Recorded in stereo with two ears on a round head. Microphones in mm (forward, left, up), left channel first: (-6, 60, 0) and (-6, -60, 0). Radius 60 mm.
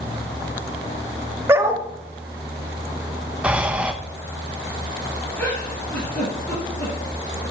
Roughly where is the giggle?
Centre.